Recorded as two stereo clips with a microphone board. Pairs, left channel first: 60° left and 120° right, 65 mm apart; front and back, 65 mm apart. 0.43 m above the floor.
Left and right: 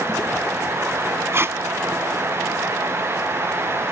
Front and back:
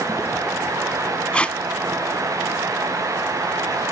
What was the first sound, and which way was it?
Tape being pulled, 70° right.